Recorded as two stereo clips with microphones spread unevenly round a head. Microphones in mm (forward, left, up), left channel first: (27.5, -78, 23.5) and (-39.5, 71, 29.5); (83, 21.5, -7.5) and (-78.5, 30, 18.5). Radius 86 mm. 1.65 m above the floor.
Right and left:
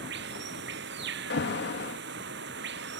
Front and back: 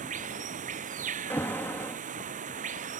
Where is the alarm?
85° right.